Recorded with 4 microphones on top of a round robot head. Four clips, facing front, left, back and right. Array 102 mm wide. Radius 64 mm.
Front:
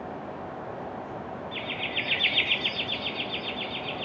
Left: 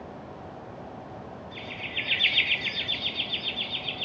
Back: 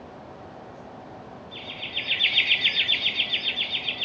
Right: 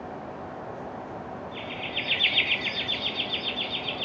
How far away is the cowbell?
No cowbell in this recording.